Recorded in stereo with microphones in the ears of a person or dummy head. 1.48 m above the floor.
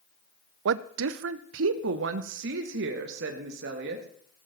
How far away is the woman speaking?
About 0.6 m.